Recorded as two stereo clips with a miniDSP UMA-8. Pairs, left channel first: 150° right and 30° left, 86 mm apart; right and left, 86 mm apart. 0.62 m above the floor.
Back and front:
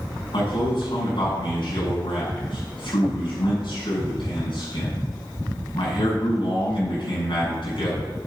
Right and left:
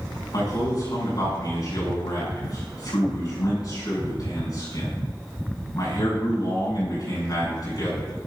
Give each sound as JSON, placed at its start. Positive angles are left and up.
{"t": 0.3, "sound": "a man speaking", "azimuth_deg": -130, "distance_m": 6.0}